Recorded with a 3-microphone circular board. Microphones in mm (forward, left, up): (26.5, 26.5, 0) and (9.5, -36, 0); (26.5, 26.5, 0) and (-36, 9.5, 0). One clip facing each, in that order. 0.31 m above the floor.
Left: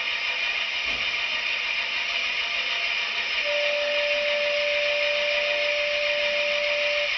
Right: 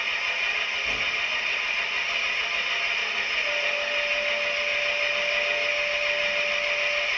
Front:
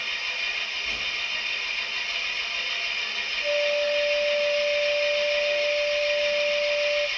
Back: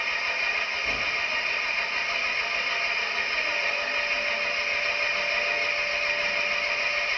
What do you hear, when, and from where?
0.0 s an engine running: 165° right, 0.9 m
3.4 s a flute: 15° left, 1.7 m